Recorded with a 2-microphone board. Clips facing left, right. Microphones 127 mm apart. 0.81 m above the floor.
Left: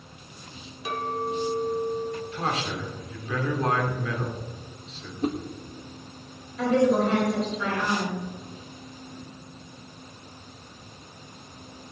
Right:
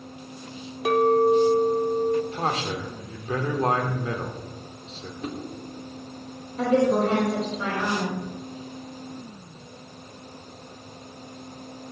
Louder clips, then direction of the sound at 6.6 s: Right 1 dB; 40° right (ahead or behind).